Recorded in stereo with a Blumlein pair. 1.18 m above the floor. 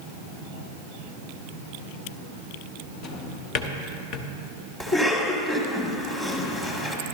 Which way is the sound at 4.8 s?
15° left.